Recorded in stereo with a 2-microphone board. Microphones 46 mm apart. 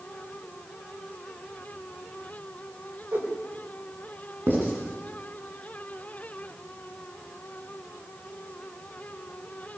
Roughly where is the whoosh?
Right.